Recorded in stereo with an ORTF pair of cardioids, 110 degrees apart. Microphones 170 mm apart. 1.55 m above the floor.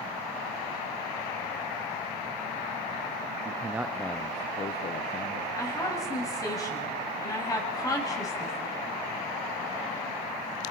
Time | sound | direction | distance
3.5 | a man speaking | 25° right | 0.9 m
5.6 | a woman speaking | 20° left | 8 m